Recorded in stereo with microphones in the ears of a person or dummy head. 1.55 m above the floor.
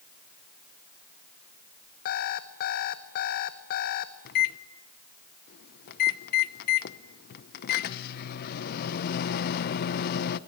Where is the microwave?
55° left (ahead or behind), 0.8 m.